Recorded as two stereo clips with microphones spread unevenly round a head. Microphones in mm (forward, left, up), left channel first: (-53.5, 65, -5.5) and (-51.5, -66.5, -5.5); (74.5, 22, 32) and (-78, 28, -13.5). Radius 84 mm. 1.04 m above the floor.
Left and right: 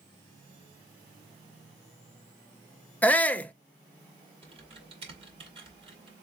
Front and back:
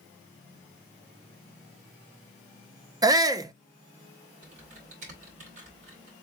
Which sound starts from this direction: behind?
A shout, at 3.0 s.